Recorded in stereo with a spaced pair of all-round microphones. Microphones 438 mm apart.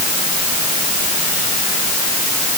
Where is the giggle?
No giggle in this recording.